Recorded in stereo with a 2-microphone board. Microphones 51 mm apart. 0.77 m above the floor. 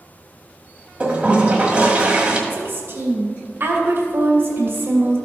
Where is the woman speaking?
50° right (ahead or behind), 2 m.